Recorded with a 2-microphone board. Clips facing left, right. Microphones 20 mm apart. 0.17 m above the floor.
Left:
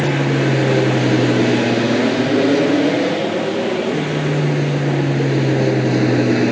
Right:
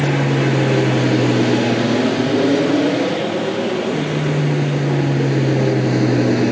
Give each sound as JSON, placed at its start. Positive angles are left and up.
{"t": 0.0, "sound": "an aircraft", "side_deg": 10}